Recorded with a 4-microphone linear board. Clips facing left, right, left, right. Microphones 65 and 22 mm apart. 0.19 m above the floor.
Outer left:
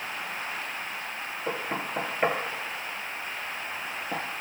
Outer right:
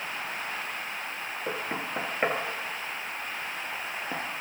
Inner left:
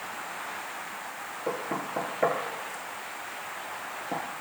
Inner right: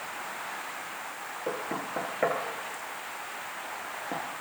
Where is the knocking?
10° right (ahead or behind), 2 m.